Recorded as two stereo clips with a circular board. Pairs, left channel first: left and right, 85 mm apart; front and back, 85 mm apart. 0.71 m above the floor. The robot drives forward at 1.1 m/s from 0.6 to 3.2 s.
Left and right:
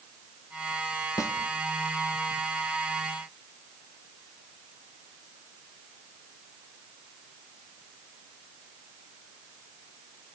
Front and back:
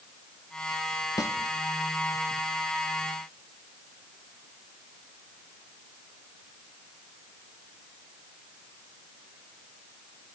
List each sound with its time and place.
1.2 s a snare drum: 45° left, 0.8 m; by 1.4 s 55° left, 0.7 m